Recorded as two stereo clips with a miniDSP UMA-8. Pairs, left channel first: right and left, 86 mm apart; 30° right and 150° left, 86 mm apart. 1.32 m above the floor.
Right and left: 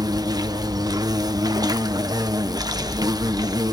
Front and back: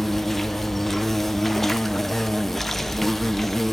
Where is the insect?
55° left, 0.9 m.